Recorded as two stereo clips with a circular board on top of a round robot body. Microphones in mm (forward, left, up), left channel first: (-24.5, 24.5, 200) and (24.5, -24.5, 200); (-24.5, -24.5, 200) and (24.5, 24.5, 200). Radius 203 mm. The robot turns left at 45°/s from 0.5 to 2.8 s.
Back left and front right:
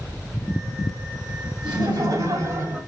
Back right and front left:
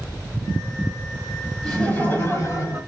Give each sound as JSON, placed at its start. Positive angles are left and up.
{"t": 1.6, "sound": "laughter", "azimuth_deg": -45, "distance_m": 3.5}